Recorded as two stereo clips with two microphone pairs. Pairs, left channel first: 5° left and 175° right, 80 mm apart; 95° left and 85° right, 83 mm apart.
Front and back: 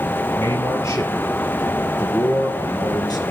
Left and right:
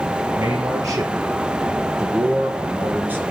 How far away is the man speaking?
About 4.5 m.